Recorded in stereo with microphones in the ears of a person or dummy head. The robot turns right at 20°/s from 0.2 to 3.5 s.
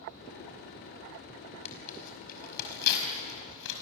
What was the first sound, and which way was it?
Tearing paper, 40° left (ahead or behind).